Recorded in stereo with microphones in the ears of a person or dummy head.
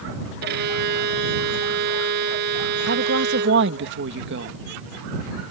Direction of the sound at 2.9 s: 65° right (ahead or behind).